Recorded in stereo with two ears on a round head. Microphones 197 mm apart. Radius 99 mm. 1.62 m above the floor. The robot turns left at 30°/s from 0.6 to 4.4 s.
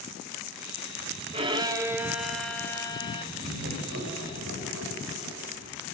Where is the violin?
150° right, 2 m; by 3.2 s 155° left, 2 m.